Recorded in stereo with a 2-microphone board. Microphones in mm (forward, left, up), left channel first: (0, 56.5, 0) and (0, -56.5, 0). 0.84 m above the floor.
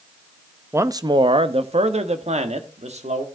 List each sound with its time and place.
0.7 s a man speaking: 20° right (ahead or behind), 0.6 m; by 3.2 s 75° right (ahead or behind), 1.6 m